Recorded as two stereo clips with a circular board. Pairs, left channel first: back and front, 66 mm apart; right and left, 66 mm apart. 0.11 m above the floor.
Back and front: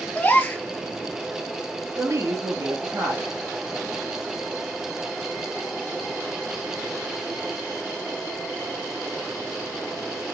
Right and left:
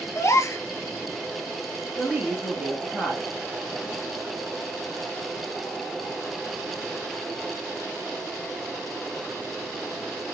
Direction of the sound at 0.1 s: 120° right.